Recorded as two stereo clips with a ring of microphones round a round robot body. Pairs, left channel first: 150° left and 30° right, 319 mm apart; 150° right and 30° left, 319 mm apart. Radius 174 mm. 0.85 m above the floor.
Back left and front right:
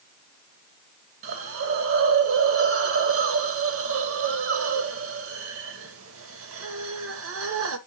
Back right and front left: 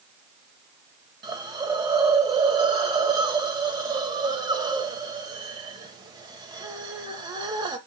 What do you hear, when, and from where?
1.2 s a hiss: 40° right, 0.7 m